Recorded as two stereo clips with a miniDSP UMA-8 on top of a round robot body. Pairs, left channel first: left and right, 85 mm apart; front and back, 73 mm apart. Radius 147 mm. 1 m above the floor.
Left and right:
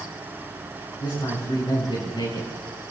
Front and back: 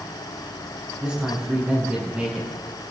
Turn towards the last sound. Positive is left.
turn(degrees=110)